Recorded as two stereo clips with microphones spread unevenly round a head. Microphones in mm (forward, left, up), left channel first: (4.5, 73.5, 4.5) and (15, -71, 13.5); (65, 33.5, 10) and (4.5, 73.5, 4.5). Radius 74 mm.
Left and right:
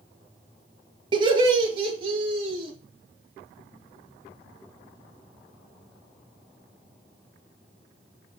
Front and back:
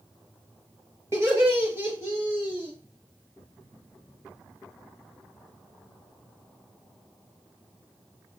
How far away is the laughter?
About 1.5 m.